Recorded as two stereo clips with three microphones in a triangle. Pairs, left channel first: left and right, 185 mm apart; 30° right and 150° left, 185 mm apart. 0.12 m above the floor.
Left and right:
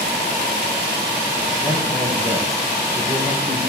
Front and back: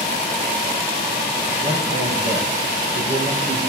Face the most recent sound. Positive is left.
turn(degrees=165)